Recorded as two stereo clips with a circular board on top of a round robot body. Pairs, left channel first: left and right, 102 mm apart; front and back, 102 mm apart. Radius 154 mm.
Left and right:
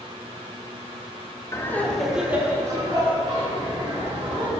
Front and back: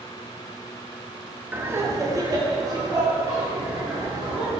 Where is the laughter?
125° left, 1.3 m; by 4.5 s 120° right, 3.5 m.